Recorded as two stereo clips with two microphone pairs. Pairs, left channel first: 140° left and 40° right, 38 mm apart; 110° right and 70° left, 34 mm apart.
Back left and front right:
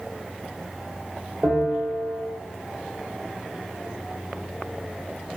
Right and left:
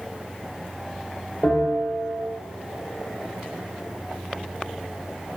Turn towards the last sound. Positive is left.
turn(degrees=-85)